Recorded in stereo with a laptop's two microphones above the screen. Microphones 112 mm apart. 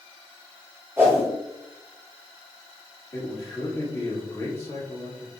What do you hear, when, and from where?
1.0 s a whoosh: 25° right (ahead or behind), 2 m
3.1 s a man speaking: 25° left (ahead or behind), 1.9 m